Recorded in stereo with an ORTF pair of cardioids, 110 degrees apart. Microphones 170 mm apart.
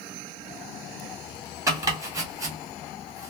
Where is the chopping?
20° right, 1.2 m.